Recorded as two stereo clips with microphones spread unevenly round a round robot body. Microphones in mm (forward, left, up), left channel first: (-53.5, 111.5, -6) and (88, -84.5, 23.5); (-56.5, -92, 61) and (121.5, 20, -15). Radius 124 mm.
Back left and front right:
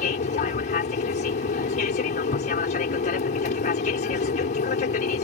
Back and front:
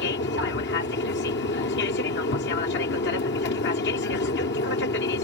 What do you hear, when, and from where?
0.0 s an aircraft: 165° left